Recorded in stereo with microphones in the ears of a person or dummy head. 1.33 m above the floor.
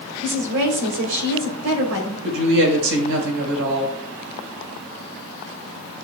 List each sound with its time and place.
0.2 s a woman speaking: 80° right, 3.5 m
2.2 s a woman speaking: 65° right (ahead or behind), 4.5 m